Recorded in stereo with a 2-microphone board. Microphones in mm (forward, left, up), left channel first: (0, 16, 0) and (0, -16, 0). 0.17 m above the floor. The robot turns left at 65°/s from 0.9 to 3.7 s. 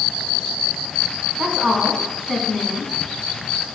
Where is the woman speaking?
120° right, 1.6 m; by 2.9 s 140° left, 1.6 m.